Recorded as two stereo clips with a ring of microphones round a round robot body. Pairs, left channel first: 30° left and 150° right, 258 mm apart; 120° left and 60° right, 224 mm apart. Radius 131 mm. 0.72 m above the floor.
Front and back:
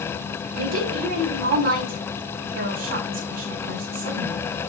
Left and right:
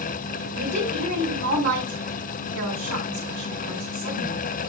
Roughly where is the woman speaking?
Right.